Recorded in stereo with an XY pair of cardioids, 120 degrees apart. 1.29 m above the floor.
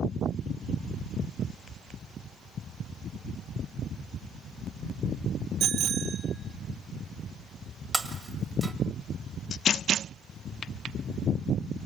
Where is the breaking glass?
15° right, 1.8 m.